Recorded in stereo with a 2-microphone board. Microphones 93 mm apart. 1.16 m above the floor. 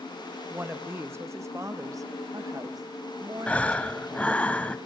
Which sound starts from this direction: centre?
Breathing, at 3.5 s.